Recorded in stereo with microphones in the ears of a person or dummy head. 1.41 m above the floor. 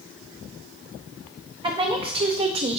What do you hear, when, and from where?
1.6 s a woman speaking: 30° right (ahead or behind), 1.5 m; by 2.8 s 35° right (ahead or behind), 1.0 m